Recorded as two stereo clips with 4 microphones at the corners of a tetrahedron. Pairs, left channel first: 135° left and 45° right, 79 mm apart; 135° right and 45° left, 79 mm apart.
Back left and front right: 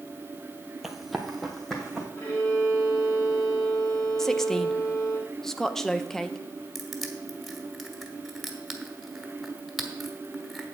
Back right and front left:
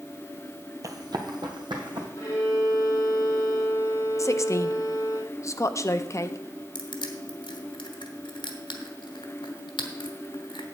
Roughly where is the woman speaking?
Behind right.